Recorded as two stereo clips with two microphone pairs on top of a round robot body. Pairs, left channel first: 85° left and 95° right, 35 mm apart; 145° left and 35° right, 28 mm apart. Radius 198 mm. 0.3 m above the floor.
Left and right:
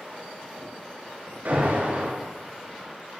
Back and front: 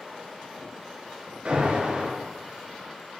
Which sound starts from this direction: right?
An alarm, at 1.4 s.